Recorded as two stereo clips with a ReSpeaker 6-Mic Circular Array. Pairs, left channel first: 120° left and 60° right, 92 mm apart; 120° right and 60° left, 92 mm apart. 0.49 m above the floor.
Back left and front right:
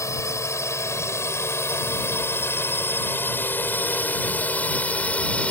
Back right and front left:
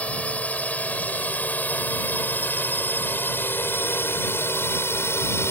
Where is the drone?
170° left; by 5.5 s 170° right.